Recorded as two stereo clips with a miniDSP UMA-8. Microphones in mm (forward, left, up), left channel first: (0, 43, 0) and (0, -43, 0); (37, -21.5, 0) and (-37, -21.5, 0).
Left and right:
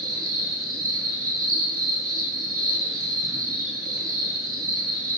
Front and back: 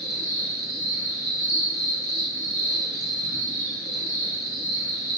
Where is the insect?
45° right, 4 m.